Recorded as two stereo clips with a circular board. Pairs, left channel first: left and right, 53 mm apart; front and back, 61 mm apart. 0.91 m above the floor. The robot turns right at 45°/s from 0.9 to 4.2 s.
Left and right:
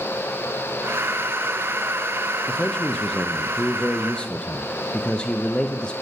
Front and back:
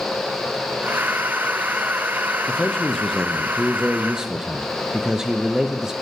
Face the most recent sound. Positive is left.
turn(degrees=120)